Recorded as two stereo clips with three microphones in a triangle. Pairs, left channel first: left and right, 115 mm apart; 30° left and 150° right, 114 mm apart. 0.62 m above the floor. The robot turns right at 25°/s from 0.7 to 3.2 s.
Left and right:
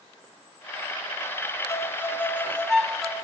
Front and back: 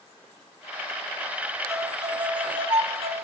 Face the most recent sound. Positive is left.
turn(degrees=-175)